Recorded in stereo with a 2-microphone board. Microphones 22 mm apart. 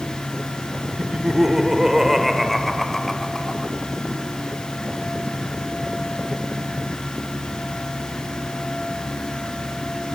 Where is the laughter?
40° right (ahead or behind), 1.1 m; by 3.8 s 20° left (ahead or behind), 1.7 m.